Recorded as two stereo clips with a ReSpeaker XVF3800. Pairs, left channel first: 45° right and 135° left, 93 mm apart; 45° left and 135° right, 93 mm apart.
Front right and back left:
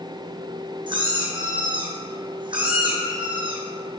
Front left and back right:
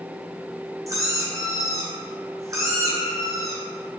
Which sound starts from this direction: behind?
A squeak, at 0.9 s.